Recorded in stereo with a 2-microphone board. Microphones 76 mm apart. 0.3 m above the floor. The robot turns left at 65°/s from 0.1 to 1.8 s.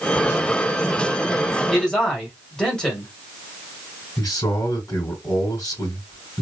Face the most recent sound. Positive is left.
turn(degrees=45)  # may be behind; listen again after turning